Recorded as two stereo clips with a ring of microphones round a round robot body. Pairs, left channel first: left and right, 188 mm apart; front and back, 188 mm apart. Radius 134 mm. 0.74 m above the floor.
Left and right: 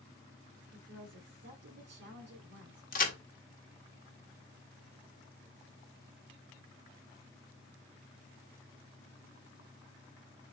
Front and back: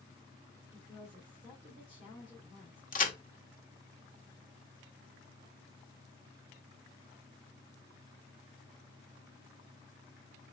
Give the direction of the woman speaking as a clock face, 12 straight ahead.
2 o'clock.